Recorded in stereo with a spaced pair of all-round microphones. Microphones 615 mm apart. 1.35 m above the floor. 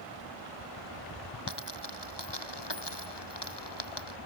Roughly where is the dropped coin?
Left.